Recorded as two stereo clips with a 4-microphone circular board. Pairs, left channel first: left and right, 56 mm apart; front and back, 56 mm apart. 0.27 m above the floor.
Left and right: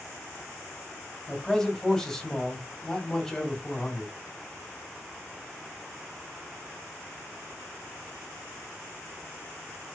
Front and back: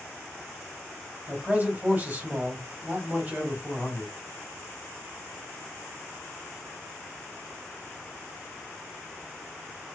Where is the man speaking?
170° left, 1.7 m.